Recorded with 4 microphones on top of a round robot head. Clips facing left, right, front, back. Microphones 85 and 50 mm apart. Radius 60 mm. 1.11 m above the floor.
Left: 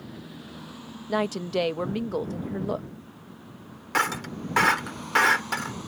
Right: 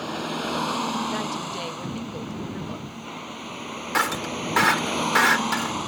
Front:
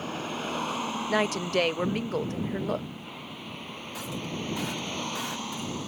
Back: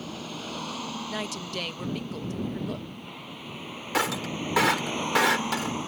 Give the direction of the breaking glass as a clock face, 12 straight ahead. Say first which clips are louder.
Right 2 dB, back 8 dB; 6 o'clock.